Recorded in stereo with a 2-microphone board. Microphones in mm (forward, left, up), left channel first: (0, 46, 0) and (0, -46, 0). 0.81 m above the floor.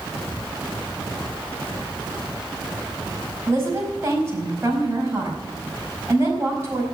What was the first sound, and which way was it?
A woman speaking, 30° right (ahead or behind).